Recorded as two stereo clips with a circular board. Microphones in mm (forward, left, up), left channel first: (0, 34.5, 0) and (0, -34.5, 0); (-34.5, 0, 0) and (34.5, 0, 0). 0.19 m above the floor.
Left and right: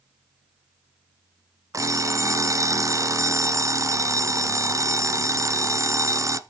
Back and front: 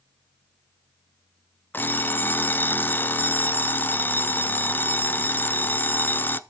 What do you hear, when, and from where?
1.7 s an alarm clock: 125° right, 1.0 m